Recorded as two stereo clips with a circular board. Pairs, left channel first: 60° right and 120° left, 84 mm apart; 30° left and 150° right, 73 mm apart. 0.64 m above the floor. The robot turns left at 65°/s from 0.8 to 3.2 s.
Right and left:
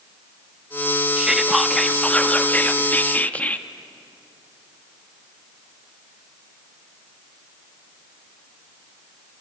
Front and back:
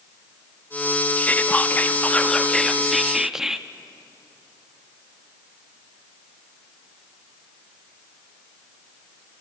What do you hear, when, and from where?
1.2 s whispering: 50° left, 0.7 m; by 3.7 s 80° right, 0.7 m